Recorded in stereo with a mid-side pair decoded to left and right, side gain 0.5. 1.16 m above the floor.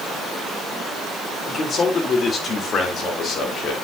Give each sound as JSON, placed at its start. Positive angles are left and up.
{"t": 1.5, "sound": "a man speaking", "azimuth_deg": 40, "distance_m": 4.0}